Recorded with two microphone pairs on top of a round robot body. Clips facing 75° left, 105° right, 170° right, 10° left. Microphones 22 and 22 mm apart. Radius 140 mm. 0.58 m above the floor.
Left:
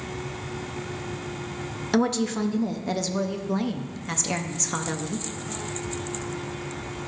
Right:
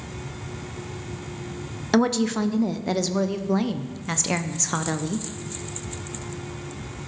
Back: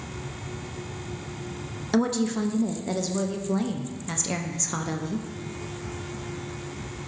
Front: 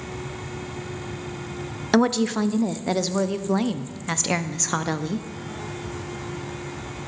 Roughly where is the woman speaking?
Ahead right.